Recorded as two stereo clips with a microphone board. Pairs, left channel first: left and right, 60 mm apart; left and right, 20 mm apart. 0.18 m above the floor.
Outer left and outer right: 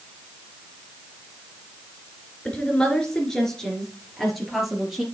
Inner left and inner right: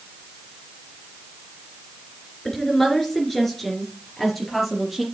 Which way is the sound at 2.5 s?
20° left (ahead or behind).